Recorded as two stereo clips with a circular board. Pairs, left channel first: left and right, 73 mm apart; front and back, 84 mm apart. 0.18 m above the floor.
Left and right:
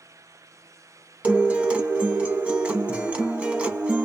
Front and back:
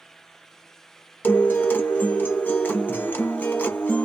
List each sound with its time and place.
1.2 s a guitar: 40° right, 1.1 m